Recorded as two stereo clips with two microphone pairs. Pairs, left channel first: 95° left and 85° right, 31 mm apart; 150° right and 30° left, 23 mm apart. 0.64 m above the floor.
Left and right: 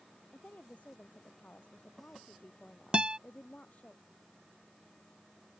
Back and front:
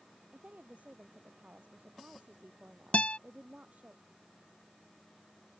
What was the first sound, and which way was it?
A woman speaking, 55° left.